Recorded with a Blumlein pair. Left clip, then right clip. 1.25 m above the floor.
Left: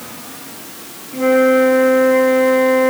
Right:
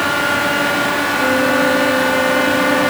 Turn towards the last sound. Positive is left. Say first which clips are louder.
# left 6 dB
turn(degrees=20)